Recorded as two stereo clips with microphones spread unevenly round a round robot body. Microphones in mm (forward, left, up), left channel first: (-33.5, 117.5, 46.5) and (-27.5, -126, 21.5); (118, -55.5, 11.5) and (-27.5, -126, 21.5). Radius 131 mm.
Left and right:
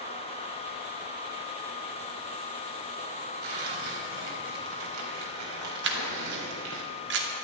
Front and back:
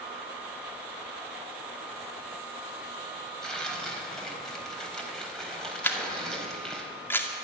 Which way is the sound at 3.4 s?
60° right.